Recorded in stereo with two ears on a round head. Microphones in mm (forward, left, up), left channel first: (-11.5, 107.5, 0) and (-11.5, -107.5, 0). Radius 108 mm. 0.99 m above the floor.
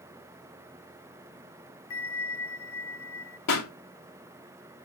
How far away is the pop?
About 2 m.